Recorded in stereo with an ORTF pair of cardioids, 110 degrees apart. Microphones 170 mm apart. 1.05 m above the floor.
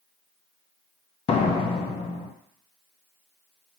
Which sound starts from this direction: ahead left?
A door slam, at 1.3 s.